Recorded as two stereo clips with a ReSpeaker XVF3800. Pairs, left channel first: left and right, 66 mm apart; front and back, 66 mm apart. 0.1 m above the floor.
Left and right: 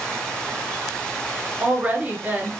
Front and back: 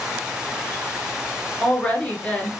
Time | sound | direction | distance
1.6 | a woman speaking | 50° right | 1.2 m